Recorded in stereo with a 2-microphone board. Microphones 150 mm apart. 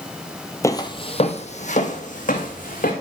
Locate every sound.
0.6 s footsteps: 20° left (ahead or behind), 0.7 m; by 2.9 s 65° left (ahead or behind), 2.5 m